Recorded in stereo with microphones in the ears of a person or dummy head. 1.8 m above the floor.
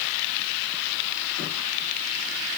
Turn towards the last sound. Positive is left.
No sound to turn to.